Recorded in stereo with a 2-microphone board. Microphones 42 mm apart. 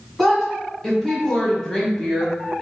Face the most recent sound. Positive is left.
turn(degrees=15)  # may be behind; listen again after turning